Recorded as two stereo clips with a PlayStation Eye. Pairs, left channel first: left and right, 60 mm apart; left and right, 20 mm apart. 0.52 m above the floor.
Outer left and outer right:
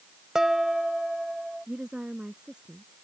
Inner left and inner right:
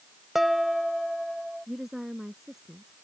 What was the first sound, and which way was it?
Dishes clattering, 10° right (ahead or behind).